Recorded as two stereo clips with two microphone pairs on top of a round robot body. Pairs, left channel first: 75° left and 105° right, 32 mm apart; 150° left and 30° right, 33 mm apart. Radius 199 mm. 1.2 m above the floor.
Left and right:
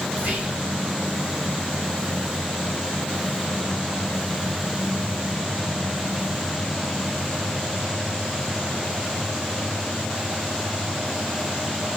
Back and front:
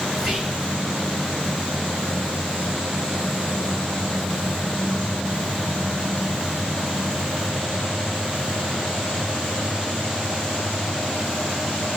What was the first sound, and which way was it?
Whispering, 100° right.